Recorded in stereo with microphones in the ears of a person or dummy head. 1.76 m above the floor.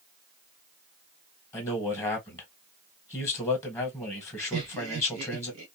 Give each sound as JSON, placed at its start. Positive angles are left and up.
{"t": 1.5, "sound": "a man speaking", "side_deg": 15, "distance_m": 1.3}
{"t": 4.5, "sound": "laughter", "side_deg": -70, "distance_m": 1.2}